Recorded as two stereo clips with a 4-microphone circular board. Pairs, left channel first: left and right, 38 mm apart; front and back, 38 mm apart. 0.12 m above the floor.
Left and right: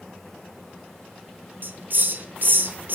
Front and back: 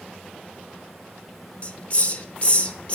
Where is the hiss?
55° right, 0.7 m.